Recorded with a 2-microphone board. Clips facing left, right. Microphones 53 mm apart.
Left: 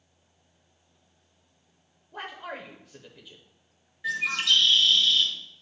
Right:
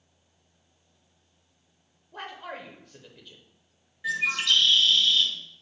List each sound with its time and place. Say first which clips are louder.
2.1 s a man speaking: left 1 dB; 5° left (ahead or behind), 0.9 m
4.0 s a bird: even; 5° right (ahead or behind), 1.7 m